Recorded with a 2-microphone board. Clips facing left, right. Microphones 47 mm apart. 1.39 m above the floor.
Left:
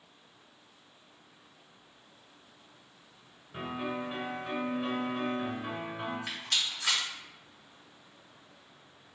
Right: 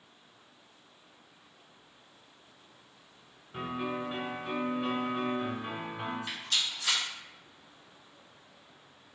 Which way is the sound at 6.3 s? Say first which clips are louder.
Even; 75° left (ahead or behind).